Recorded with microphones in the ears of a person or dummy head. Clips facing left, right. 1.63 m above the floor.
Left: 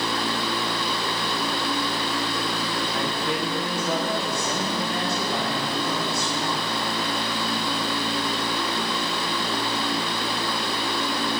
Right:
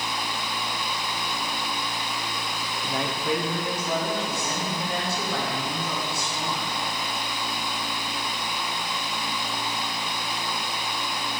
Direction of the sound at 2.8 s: 25° right (ahead or behind).